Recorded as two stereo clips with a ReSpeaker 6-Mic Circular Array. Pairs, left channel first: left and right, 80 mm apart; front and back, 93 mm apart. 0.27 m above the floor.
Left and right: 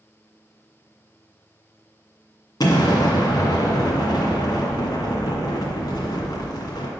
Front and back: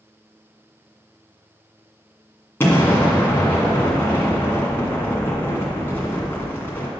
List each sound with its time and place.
2.6 s an explosion: 65° left, 1.9 m